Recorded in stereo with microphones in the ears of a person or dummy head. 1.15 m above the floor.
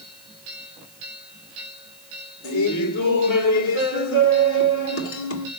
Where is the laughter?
75° left (ahead or behind), 3 m.